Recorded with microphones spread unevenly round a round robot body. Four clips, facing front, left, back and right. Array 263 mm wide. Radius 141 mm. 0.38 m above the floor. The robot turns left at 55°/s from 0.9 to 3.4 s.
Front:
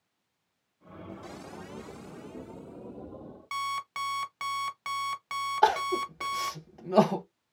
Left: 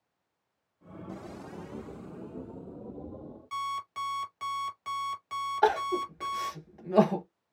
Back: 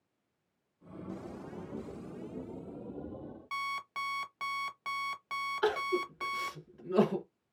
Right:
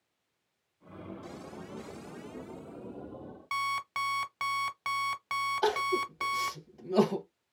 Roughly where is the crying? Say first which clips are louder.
Left 5 dB, front 7 dB; ahead.